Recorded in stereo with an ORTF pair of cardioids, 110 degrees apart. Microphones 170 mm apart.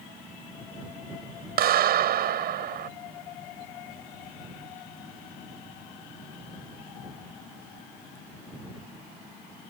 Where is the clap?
60° right.